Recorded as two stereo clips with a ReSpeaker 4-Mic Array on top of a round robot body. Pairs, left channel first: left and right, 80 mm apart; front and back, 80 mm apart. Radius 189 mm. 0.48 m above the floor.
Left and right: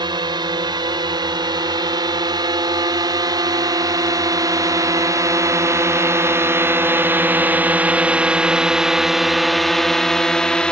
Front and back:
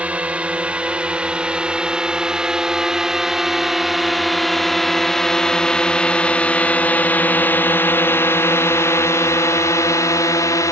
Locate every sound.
0.0 s a drone: 105° right; by 10.7 s 15° left